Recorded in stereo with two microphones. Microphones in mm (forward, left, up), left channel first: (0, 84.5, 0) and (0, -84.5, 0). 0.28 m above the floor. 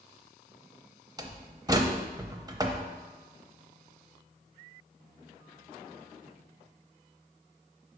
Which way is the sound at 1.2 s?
25° right (ahead or behind).